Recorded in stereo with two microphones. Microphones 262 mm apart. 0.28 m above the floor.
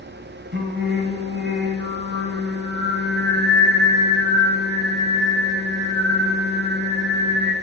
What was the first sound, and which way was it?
Singing, 45° right (ahead or behind).